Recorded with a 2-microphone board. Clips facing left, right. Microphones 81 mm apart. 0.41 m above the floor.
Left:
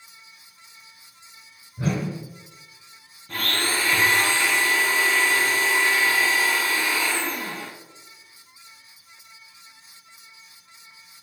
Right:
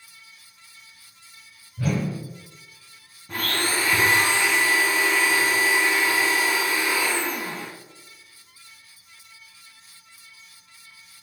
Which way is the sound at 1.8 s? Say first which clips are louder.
Even; 25° left (ahead or behind).